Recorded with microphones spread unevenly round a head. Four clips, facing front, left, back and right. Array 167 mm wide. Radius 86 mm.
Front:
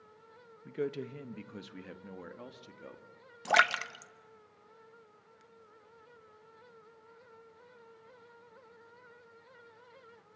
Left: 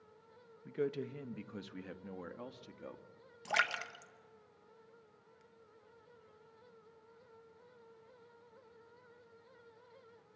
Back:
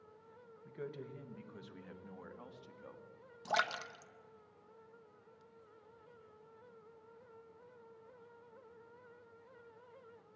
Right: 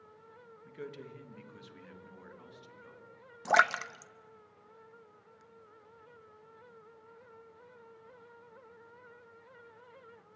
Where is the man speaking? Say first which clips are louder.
Left 8 dB, front 10 dB; 30° left, 1.4 m; by 3.0 s 55° left, 2.5 m.